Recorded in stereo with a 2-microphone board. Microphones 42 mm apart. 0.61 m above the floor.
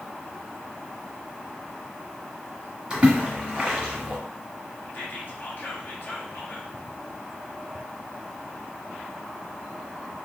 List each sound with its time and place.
2.9 s a splash: 25° right (ahead or behind), 1.3 m
4.9 s whispering: 50° left (ahead or behind), 1.1 m